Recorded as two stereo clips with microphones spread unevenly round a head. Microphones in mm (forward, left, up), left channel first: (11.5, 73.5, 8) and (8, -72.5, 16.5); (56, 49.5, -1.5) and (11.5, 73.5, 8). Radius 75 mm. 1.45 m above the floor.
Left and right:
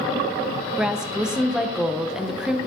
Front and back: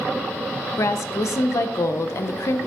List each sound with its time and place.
0.8 s a woman speaking: 10° right, 0.7 m